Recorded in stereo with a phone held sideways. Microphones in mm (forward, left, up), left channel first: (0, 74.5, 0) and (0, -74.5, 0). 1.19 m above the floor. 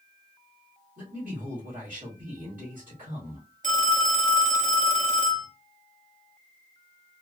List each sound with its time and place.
1.0 s a man speaking: 65° right (ahead or behind), 2 m
3.6 s a phone ringing: 55° right (ahead or behind), 1.3 m